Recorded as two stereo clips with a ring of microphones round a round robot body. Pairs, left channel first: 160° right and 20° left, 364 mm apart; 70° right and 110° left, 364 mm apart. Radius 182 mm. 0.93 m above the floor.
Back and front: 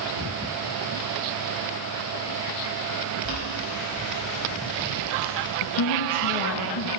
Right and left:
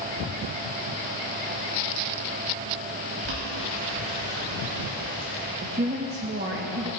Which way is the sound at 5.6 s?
175° left.